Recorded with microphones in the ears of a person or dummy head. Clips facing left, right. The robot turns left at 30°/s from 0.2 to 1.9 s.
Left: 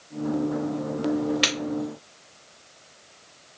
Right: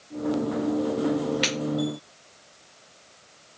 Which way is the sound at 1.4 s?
10° left (ahead or behind).